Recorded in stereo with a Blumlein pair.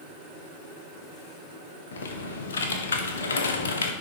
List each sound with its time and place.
1.9 s typing on a keyboard: 65° left, 1.2 m